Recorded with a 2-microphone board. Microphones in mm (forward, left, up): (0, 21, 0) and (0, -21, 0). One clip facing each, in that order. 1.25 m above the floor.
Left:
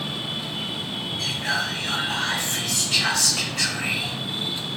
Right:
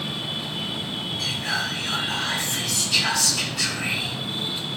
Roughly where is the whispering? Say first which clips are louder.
Left 2 dB; left.